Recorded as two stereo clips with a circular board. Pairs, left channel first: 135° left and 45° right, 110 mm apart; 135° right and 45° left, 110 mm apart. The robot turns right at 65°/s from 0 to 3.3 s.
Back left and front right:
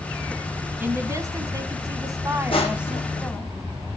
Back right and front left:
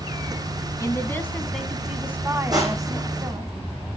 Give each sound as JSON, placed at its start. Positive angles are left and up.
{"t": 0.8, "sound": "a woman speaking", "azimuth_deg": -100, "distance_m": 1.4}
{"t": 2.5, "sound": "crushing", "azimuth_deg": 100, "distance_m": 2.5}